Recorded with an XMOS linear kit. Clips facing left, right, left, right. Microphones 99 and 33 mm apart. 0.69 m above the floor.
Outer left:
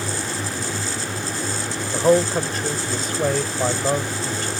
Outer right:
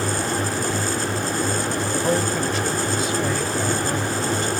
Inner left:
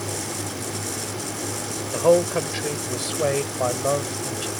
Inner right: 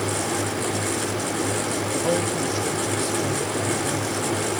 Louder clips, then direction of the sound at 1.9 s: Outer left 7 dB, inner left 8 dB; 40° left (ahead or behind).